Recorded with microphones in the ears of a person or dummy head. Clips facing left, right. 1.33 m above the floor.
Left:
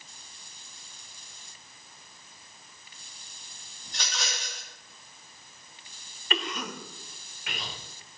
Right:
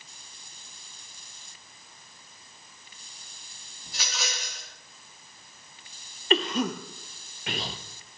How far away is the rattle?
About 3 m.